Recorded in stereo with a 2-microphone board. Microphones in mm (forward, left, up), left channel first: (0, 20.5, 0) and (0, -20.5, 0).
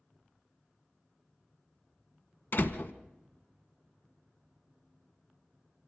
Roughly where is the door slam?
Left.